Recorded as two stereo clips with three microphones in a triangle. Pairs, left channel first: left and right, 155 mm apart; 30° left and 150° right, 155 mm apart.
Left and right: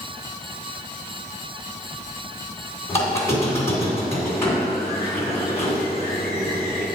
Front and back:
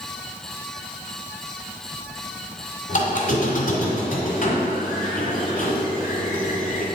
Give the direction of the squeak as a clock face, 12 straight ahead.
11 o'clock.